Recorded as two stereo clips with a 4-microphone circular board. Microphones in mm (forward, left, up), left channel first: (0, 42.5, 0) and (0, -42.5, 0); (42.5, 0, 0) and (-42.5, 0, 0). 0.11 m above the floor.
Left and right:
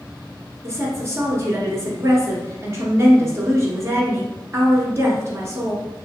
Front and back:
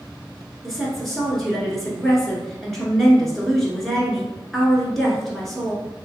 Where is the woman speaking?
85° right, 1.2 m.